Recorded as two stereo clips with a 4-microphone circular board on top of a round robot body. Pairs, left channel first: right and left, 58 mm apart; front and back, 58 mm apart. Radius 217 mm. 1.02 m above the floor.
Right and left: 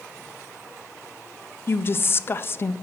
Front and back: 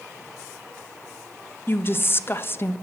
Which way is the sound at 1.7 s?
45° right.